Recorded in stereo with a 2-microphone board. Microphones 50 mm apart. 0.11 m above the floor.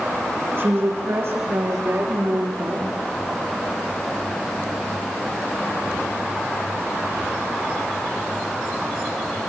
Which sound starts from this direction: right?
A woman speaking, at 0.6 s.